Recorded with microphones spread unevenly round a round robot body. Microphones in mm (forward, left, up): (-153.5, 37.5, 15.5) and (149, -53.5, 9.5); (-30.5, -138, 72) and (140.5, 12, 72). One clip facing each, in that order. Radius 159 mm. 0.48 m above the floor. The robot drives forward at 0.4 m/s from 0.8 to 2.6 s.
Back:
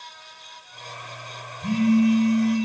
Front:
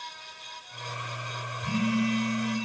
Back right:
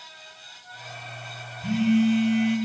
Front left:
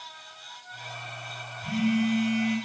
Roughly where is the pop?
No pop in this recording.